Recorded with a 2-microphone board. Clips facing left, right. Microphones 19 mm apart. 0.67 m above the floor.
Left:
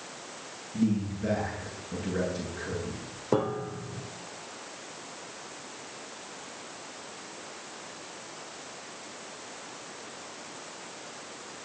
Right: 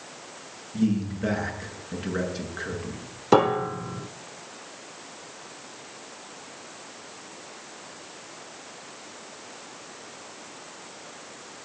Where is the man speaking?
50° right (ahead or behind), 9 m.